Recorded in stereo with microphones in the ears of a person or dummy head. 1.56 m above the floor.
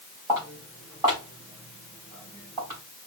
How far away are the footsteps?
About 3.5 m.